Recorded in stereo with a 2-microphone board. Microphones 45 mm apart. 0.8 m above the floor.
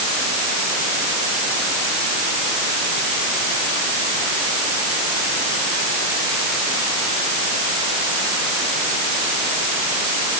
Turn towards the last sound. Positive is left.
No sound to turn to.